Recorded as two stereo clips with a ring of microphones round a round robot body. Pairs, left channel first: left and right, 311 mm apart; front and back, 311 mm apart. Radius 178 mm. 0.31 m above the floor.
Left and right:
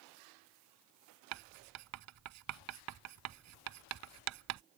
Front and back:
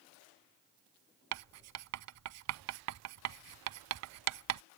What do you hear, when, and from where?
1.3 s writing: 140° right